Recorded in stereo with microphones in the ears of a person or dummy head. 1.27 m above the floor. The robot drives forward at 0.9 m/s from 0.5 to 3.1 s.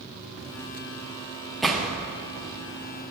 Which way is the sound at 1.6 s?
5° right (ahead or behind).